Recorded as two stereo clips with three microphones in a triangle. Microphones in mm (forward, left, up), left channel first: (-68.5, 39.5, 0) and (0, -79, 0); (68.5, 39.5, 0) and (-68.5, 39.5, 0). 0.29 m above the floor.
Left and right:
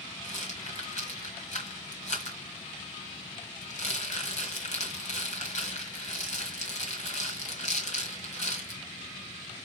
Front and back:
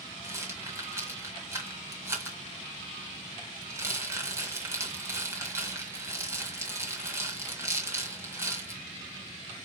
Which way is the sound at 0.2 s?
110° left.